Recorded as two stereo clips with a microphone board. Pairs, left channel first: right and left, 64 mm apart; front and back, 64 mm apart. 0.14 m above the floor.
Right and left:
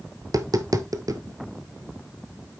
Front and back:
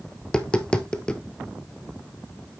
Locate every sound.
0.2 s tapping: 75° left, 1.1 m